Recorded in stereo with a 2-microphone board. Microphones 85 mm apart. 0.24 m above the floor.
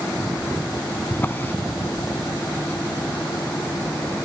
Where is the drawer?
25° left (ahead or behind), 0.6 m.